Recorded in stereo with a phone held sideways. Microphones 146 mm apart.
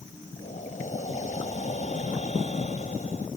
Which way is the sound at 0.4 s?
55° left (ahead or behind).